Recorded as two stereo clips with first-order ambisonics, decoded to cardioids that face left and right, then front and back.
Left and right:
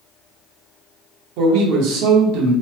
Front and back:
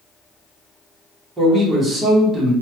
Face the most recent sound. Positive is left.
turn(degrees=-100)